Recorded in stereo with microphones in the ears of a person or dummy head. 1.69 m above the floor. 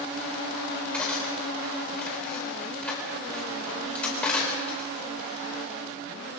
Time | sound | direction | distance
0.9 | cutlery clinking | 5° left (ahead or behind) | 4.5 m